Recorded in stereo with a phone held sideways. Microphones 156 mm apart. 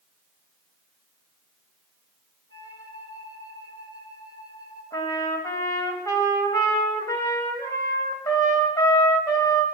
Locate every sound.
2.5 s a flute: 25° left (ahead or behind), 4.5 m
4.9 s a trumpet: 20° left (ahead or behind), 3 m